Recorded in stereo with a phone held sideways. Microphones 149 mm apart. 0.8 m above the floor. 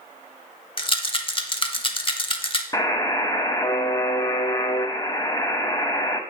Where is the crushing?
I don't hear crushing.